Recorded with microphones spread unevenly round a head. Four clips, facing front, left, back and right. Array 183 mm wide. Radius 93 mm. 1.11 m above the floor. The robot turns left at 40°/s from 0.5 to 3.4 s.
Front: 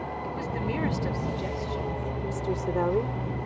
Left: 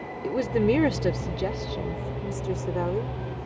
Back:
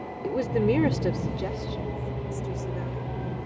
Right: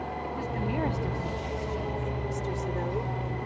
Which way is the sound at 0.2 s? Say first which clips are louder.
Left 13 dB, back 11 dB; 120° left.